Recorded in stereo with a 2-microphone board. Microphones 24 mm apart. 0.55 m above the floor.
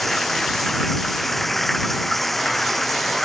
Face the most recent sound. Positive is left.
turn(degrees=5)  # may be behind; listen again after turning